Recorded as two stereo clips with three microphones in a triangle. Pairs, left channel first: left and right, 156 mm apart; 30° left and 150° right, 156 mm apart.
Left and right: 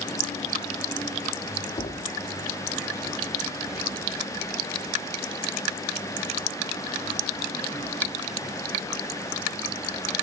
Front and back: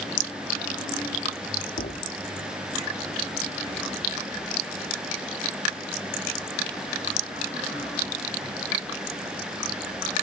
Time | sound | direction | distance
1.8 | a thud | 40° left | 6.5 m